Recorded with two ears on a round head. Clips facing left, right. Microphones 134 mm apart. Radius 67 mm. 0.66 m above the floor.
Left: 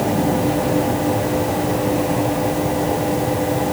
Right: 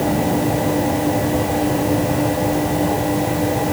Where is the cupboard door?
I don't hear a cupboard door.